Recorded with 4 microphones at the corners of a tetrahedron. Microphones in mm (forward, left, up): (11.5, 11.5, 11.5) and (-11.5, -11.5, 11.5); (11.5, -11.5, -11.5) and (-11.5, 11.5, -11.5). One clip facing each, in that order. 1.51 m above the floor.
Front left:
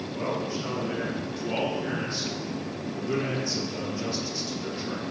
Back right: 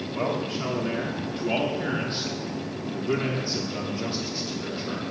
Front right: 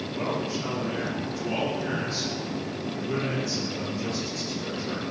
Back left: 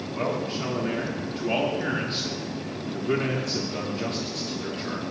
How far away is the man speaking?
About 3 m.